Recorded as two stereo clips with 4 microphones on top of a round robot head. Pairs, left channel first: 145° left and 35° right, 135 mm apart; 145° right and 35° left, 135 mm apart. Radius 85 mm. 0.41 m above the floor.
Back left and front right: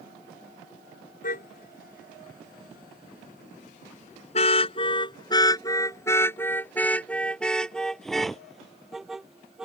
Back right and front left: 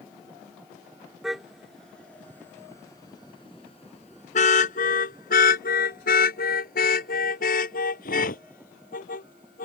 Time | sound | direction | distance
1.2 | a car horn | 125° left | ?